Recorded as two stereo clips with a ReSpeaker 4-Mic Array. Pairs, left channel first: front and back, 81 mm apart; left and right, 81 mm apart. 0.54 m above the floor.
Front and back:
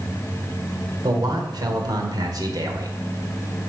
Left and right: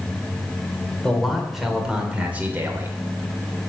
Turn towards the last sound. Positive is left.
turn(degrees=-145)